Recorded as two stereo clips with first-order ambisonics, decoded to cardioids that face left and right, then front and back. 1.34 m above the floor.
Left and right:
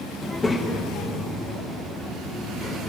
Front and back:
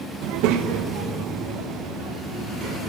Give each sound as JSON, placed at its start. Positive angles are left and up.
{"t": 0.2, "sound": "a child speaking", "azimuth_deg": 175, "distance_m": 0.7}